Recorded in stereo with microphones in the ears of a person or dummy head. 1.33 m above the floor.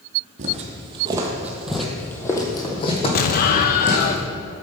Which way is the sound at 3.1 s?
50° left (ahead or behind).